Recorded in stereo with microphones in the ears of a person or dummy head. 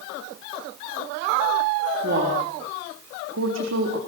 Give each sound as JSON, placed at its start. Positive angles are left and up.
{"t": 2.0, "sound": "a woman speaking", "side_deg": -50, "distance_m": 3.5}